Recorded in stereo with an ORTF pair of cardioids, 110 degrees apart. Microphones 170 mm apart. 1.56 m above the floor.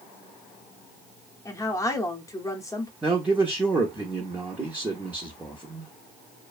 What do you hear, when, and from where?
1.4 s a woman speaking: 20° left, 0.7 m
3.0 s a man speaking: 10° right, 0.6 m